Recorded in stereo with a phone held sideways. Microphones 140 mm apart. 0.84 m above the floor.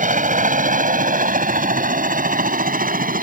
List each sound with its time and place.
0.0 s a helicopter: 65° right (ahead or behind); by 3.2 s 80° right